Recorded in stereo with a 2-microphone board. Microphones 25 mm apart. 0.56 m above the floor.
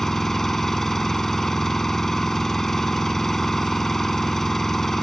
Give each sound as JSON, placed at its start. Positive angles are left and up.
{"t": 0.0, "sound": "an engine running", "side_deg": 15}